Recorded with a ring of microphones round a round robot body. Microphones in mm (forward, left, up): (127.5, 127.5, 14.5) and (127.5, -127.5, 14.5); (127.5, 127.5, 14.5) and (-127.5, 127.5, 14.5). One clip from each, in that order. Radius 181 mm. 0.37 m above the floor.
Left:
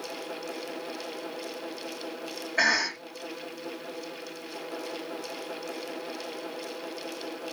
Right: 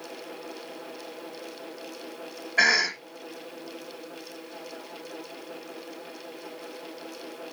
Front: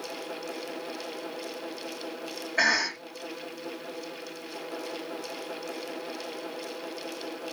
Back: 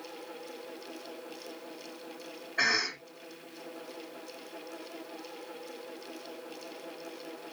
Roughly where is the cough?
Ahead.